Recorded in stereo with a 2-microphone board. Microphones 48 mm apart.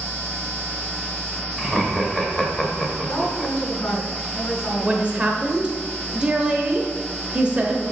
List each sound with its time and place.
1.6 s laughter: 5° left (ahead or behind), 1.2 m
3.1 s a woman speaking: 65° left (ahead or behind), 3 m
4.8 s a woman speaking: 20° right (ahead or behind), 0.9 m